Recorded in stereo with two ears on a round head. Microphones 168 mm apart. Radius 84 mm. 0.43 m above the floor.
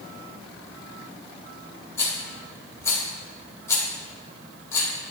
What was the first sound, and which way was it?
A rattle, 15° left (ahead or behind).